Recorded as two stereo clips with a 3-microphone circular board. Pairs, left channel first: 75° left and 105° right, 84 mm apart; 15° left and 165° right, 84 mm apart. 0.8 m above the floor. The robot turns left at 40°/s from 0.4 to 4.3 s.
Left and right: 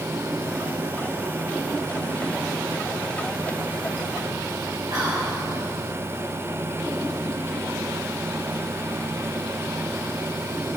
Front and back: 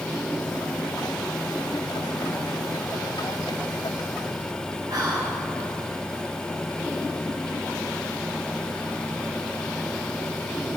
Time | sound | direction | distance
4.9 | whispering | 125° right | 3 m